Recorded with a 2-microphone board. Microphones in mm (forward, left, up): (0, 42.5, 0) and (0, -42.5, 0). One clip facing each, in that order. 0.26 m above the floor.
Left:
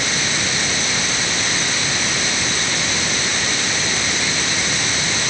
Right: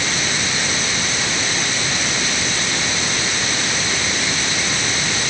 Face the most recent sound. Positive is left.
No sound to turn to.